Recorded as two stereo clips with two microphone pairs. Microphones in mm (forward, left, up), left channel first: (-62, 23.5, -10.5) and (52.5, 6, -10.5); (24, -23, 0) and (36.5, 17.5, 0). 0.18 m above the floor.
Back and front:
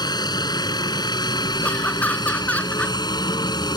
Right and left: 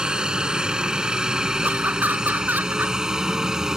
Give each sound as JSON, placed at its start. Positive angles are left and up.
{"t": 0.0, "sound": "a helicopter", "azimuth_deg": 135}
{"t": 1.6, "sound": "laughter", "azimuth_deg": 100}